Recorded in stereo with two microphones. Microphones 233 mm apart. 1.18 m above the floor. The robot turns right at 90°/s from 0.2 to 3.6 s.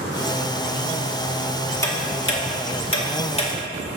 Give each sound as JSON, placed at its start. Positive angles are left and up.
{"t": 1.8, "sound": "ticking", "side_deg": 15, "distance_m": 2.0}